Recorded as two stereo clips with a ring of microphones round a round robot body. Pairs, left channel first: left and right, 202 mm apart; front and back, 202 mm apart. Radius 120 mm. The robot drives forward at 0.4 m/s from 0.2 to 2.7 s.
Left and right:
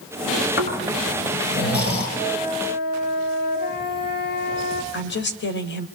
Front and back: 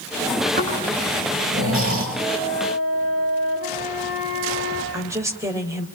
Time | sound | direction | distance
0.6 | snoring | 125° left | 7.5 m
2.2 | a flute | 130° left | 5.5 m
4.9 | a woman speaking | 105° left | 2.5 m